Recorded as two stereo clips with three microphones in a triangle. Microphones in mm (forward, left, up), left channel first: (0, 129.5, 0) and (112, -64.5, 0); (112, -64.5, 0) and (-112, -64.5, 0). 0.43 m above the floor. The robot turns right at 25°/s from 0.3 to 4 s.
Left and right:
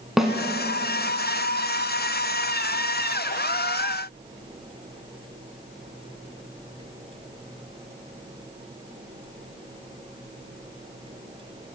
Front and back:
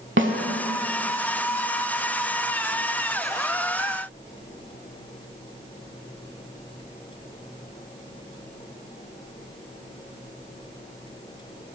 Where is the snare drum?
150° right, 0.7 m; by 0.3 s 145° right, 0.7 m.